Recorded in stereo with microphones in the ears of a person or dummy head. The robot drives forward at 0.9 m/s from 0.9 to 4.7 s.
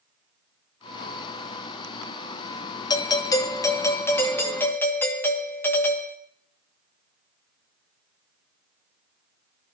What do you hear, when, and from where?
2.9 s a doorbell: 20° left (ahead or behind), 1.0 m; by 6.2 s 10° left (ahead or behind), 2.0 m